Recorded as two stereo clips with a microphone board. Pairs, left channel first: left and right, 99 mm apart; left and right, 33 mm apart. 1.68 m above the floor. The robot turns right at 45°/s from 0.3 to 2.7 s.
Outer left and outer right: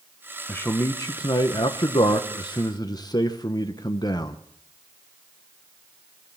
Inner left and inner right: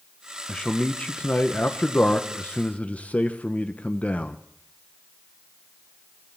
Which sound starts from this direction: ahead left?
A man speaking, at 0.5 s.